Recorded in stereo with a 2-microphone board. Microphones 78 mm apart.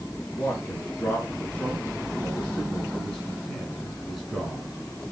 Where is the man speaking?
25° left (ahead or behind), 5.5 m; by 4.7 s centre (ahead or behind), 5 m.